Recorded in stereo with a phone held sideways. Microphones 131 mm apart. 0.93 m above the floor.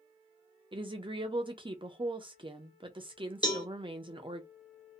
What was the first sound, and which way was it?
A woman speaking, 40° right (ahead or behind).